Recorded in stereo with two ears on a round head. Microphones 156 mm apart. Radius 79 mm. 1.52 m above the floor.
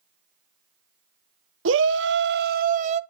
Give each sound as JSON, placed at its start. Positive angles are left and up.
{"t": 1.6, "sound": "a shout", "side_deg": -80, "distance_m": 1.1}